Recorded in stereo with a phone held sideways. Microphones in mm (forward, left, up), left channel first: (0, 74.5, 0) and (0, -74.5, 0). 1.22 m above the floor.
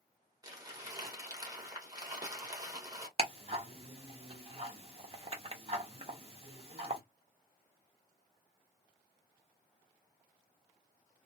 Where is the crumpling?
25° right (ahead or behind), 1.1 m.